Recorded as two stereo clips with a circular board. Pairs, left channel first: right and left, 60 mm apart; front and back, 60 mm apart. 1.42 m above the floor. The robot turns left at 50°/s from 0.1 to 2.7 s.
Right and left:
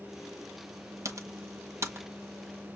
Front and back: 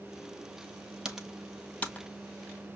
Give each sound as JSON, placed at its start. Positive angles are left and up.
{"t": 1.1, "sound": "typing on a keyboard", "azimuth_deg": 105, "distance_m": 0.8}